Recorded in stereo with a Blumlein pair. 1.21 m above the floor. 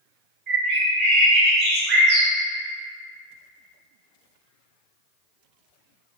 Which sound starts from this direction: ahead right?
A bird, at 0.5 s.